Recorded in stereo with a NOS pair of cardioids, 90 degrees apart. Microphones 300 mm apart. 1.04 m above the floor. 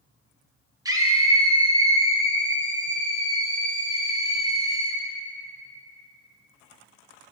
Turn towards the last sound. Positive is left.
turn(degrees=-15)